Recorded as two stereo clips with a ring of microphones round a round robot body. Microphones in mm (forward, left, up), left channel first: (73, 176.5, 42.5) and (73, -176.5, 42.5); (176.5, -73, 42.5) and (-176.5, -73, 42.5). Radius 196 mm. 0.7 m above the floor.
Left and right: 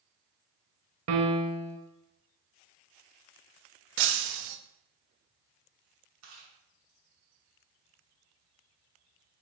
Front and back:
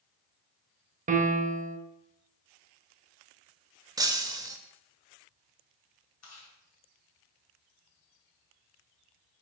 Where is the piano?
120° right, 0.5 m.